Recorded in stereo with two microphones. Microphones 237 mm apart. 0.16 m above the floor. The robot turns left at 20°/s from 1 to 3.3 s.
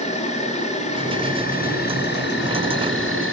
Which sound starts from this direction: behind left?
An insect, at 0.0 s.